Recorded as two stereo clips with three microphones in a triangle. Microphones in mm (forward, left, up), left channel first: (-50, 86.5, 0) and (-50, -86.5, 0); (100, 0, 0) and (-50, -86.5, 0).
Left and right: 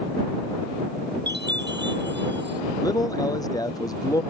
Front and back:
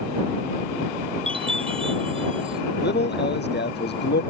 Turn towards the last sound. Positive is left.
turn(degrees=20)